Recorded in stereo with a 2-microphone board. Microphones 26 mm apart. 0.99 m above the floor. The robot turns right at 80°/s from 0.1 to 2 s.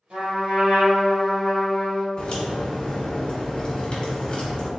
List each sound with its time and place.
0.1 s a trumpet: 120° right, 1.9 m; by 2.1 s 35° left, 1.9 m
2.2 s a crack: 40° left (ahead or behind), 1.2 m